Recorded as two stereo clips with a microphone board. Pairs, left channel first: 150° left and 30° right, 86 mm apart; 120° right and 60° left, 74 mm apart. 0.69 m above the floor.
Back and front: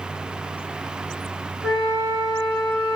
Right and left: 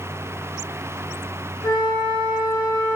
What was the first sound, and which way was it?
A flute, 110° right.